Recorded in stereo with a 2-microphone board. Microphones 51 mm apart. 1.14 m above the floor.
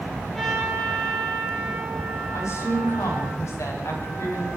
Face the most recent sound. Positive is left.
turn(degrees=90)